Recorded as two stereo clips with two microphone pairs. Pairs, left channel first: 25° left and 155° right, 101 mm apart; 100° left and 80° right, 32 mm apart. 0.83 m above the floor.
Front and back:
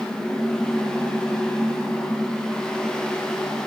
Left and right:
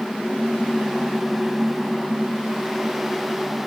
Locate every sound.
Only background noise.